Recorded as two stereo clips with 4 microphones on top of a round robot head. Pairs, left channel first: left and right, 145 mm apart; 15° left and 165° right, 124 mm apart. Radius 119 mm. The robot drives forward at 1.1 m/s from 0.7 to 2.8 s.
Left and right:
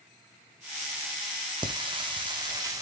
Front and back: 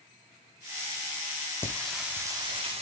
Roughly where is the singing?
Ahead right.